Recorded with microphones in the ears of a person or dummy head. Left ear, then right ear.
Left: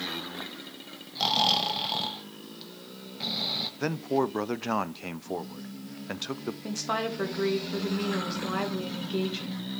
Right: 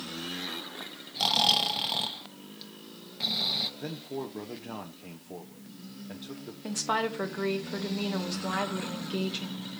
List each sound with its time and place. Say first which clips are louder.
1.1 s snoring: even; 5° right (ahead or behind), 0.6 m
3.8 s a man speaking: left 10 dB; 55° left (ahead or behind), 0.5 m
6.6 s a woman speaking: right 2 dB; 20° right (ahead or behind), 1.2 m